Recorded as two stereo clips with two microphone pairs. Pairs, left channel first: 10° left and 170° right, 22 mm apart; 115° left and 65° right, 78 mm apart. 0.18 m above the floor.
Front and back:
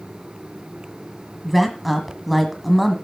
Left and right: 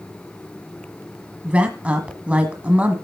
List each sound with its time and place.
1.4 s a woman speaking: 85° right, 1.3 m